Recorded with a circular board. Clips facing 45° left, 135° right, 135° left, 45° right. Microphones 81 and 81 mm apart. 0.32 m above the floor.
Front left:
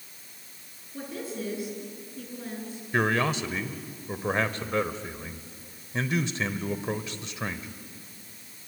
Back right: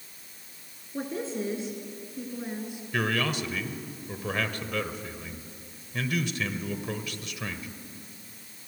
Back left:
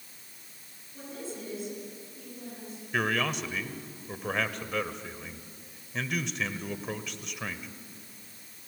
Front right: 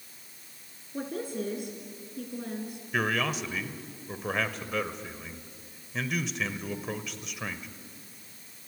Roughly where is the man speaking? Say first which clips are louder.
Front left 3 dB, even; ahead left.